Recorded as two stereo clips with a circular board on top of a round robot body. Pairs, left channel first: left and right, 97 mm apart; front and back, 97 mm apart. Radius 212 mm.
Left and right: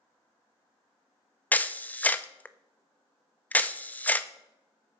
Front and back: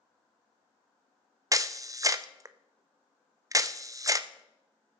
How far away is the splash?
I don't hear a splash.